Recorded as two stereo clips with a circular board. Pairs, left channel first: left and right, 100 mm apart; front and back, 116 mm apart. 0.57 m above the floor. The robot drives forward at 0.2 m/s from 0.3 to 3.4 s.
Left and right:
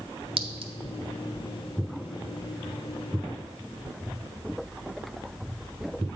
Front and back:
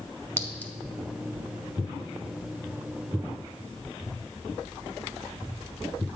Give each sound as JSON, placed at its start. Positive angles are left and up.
{"t": 0.4, "sound": "a clink", "azimuth_deg": -70, "distance_m": 0.7}